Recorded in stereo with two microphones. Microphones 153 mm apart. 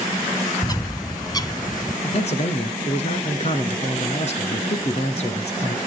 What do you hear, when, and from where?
0.6 s a bird: 25° left (ahead or behind), 0.6 m
2.0 s a man speaking: 45° left (ahead or behind), 2.0 m